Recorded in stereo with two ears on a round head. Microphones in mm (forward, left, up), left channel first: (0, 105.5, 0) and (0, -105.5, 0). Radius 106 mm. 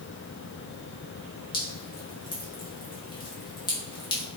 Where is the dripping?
20° left (ahead or behind), 2.5 m.